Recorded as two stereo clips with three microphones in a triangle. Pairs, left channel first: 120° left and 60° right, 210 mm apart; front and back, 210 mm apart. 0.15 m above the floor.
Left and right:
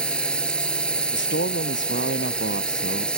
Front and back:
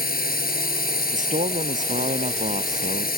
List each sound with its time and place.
0.0 s a drone: 35° left
1.1 s a man speaking: 130° left